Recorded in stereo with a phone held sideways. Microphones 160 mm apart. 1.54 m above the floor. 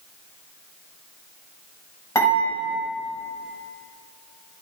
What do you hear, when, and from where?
2.1 s dishes clattering: 20° left (ahead or behind), 5.5 m